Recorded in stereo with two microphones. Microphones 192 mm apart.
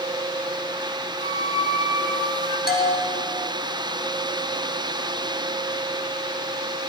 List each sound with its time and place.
1.2 s a flute: 30° left (ahead or behind), 1.2 m
2.7 s a bell: 55° left (ahead or behind), 1.7 m